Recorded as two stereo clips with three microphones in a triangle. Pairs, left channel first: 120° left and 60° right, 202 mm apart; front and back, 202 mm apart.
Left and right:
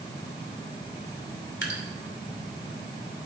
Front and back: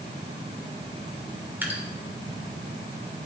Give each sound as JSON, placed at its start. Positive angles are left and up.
{"t": 1.6, "sound": "dripping", "azimuth_deg": 100, "distance_m": 2.5}